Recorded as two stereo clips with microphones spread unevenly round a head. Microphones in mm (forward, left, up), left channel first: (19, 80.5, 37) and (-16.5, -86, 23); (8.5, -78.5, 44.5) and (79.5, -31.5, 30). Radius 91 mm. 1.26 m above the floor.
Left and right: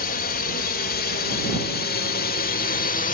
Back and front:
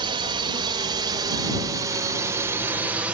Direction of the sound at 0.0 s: 45° left.